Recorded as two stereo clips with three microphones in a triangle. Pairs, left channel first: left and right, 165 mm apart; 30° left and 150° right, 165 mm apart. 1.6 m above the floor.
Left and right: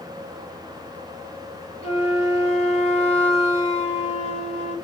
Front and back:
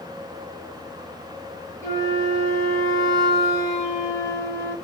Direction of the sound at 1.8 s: 85° left.